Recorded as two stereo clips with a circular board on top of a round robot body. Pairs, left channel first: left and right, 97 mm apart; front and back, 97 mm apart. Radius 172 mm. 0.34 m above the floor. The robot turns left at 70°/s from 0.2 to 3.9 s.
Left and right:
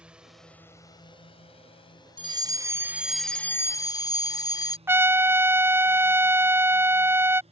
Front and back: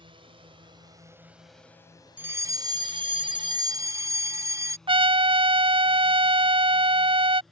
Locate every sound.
0.0 s a drone: 170° right; by 7.5 s 90° right
2.2 s a fire alarm: 110° right; by 4.8 s 130° left
4.9 s a trumpet: 155° right